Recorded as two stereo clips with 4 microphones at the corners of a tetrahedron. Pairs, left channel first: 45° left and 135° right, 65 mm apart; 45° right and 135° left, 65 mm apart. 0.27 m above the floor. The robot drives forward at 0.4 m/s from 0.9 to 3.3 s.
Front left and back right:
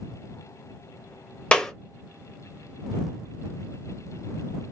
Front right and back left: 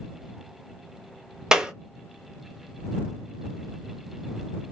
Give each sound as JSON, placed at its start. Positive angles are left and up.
{"t": 1.5, "sound": "a clap", "azimuth_deg": 80, "distance_m": 0.7}